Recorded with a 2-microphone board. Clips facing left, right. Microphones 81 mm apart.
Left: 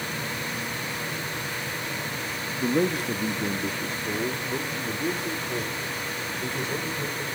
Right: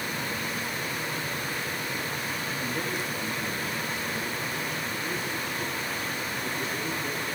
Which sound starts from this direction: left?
A man speaking, at 2.6 s.